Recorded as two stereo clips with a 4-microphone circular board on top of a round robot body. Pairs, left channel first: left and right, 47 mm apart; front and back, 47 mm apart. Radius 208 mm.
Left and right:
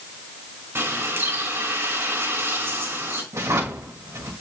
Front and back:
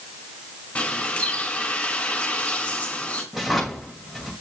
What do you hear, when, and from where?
0.8 s a bird: 60° right, 3.5 m
3.3 s a drawer: 90° right, 2.5 m